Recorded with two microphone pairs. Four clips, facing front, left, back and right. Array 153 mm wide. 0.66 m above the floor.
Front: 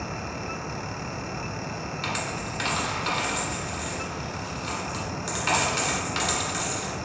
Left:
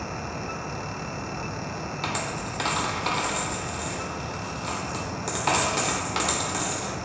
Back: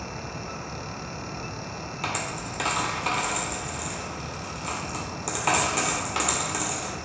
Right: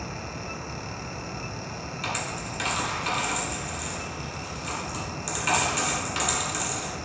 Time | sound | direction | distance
2.0 | a dropped coin | 125° left | 0.5 m